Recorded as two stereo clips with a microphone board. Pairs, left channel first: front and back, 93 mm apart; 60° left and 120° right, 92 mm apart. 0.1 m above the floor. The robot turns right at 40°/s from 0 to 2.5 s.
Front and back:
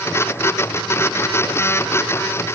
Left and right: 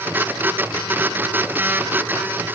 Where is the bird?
I don't hear a bird.